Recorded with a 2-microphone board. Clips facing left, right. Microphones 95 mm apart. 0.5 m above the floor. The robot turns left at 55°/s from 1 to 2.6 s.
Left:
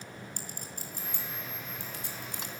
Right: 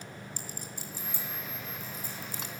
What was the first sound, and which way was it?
A clink, 50° left (ahead or behind).